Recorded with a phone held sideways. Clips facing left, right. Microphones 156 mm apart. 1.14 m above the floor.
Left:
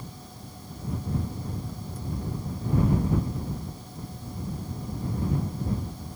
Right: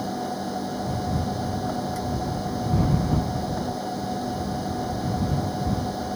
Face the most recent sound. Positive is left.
turn(degrees=-80)